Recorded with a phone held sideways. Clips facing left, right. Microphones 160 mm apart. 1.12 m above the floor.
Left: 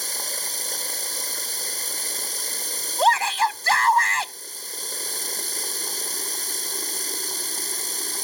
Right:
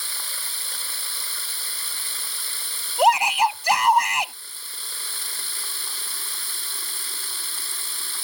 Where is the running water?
40° left (ahead or behind).